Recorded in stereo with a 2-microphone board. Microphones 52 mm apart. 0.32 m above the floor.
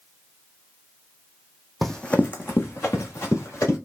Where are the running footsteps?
Centre (ahead or behind), 0.7 m; by 3.8 s 60° left (ahead or behind), 2.5 m.